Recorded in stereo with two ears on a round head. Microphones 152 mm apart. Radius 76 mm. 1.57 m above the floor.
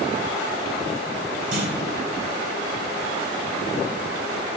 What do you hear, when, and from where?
1.5 s a clunk: 70° right (ahead or behind), 4 m